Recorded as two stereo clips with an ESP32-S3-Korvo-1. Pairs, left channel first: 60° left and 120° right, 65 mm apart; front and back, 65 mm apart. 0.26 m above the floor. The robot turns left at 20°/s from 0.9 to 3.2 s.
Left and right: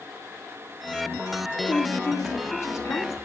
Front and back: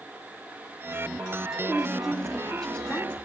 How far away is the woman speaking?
About 2 m.